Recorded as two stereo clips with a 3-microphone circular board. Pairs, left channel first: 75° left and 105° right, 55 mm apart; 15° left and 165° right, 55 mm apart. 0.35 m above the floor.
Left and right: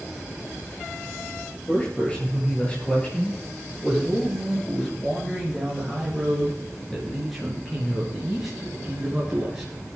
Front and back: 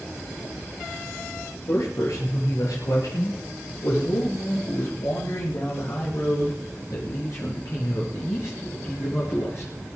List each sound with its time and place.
1.5 s a man speaking: 10° left, 7 m; by 9.7 s 25° right, 5 m